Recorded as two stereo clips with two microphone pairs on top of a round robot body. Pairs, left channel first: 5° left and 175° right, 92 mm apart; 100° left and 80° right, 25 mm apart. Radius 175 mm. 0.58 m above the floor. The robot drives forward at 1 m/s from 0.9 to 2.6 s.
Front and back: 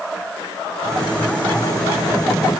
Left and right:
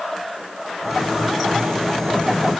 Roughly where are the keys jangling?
No keys jangling in this recording.